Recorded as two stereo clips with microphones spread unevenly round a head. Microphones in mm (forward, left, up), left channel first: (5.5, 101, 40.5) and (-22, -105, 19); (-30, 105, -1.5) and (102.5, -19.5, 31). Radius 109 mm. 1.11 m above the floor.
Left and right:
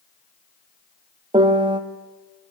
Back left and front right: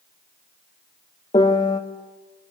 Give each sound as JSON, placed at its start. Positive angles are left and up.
{"t": 1.3, "sound": "a piano", "azimuth_deg": -160, "distance_m": 1.2}